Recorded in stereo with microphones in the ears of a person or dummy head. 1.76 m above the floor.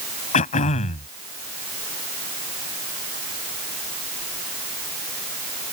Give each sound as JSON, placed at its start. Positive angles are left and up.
{"t": 0.3, "sound": "throat clearing", "side_deg": 35}